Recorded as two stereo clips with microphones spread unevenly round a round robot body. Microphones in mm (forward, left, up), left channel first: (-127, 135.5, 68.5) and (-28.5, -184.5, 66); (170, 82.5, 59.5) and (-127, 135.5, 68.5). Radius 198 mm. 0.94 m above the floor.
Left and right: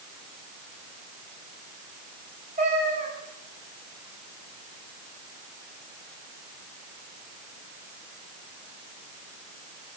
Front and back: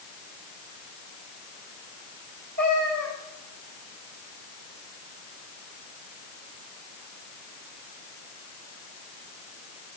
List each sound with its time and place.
2.6 s a cat meowing: 140° right, 9 m